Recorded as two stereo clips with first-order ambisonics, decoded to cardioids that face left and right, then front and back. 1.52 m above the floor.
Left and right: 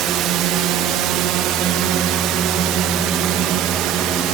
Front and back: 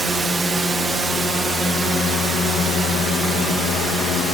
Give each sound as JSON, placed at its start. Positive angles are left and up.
{"t": 0.0, "sound": "a drone", "azimuth_deg": -110}